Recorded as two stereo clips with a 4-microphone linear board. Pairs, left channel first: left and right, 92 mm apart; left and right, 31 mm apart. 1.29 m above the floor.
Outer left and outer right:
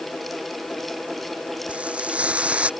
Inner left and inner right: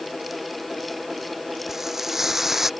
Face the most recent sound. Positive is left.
turn(degrees=-15)  # may be behind; listen again after turning